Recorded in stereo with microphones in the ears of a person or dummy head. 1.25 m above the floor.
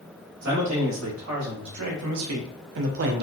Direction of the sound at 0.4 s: 70° right (ahead or behind).